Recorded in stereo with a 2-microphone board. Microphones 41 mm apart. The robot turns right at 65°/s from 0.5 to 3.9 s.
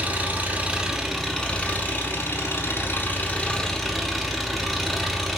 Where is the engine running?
40° right, 0.8 m; by 5.4 s straight behind, 0.8 m.